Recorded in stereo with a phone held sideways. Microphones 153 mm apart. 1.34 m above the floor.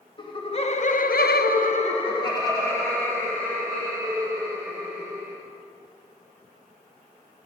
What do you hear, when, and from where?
0.2 s laughter: 30° left (ahead or behind), 1.3 m; by 5.4 s 5° left (ahead or behind), 4 m